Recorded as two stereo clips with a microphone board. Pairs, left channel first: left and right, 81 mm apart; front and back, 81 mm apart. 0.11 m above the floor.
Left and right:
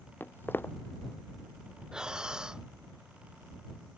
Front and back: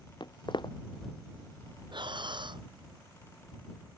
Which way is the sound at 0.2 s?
25° left.